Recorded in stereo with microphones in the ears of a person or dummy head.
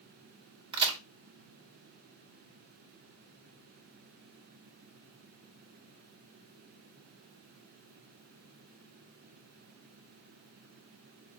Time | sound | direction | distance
0.7 | a crack | 25° right (ahead or behind) | 1.4 m